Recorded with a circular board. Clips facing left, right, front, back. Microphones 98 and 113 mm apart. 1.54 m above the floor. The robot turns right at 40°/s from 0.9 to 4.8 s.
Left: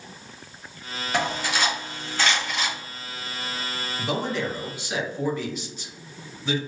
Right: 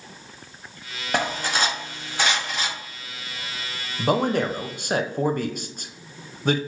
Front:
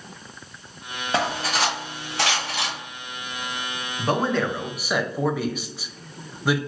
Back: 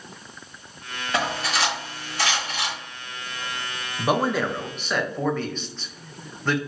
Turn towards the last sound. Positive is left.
turn(degrees=-80)